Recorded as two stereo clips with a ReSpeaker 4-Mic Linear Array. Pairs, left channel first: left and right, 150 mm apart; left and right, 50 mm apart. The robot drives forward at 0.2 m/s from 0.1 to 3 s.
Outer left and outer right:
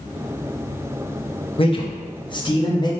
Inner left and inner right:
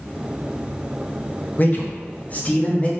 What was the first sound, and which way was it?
A man speaking, 40° left (ahead or behind).